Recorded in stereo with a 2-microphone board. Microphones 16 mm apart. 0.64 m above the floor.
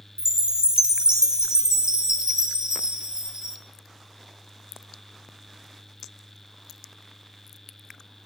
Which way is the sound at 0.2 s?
55° right (ahead or behind).